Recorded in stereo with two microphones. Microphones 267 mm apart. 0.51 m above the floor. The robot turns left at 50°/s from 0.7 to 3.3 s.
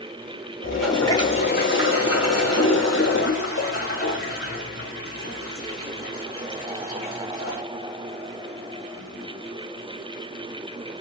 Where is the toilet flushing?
175° right, 2.0 m; by 7.6 s 55° left, 2.0 m.